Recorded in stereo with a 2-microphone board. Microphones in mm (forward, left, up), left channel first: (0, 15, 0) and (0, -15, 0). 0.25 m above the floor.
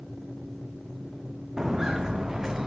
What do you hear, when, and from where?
1.6 s footsteps: 15° right (ahead or behind), 1.1 m; by 2.7 s 20° right (ahead or behind), 1.7 m